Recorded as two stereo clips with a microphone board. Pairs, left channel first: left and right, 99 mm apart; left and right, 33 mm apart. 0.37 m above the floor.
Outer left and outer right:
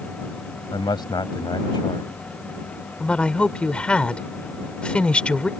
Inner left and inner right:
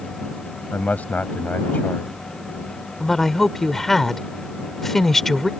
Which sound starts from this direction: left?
A man speaking, at 0.7 s.